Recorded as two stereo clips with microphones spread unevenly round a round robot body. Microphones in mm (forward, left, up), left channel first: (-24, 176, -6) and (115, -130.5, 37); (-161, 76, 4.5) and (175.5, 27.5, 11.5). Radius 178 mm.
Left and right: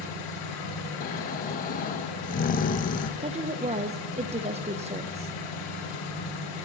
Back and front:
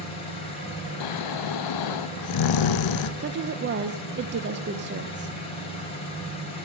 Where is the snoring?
175° left, 0.5 m.